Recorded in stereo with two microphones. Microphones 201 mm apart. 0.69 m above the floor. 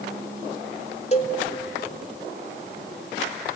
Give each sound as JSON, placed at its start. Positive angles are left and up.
{"t": 1.1, "sound": "a cowbell", "side_deg": 30, "distance_m": 1.2}